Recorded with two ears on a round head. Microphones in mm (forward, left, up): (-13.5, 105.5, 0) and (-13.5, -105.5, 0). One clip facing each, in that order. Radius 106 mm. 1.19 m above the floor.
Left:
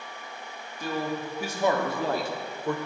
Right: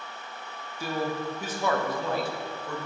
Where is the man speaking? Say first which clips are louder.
Even; 10° right (ahead or behind), 1.1 m; by 2.8 s 55° left (ahead or behind), 0.9 m.